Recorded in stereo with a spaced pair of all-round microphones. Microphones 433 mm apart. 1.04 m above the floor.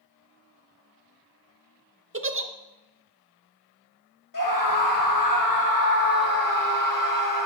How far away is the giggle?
About 0.5 m.